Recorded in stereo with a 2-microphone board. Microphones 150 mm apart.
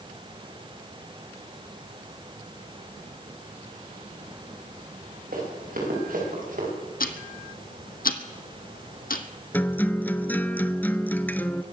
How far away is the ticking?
About 1.0 m.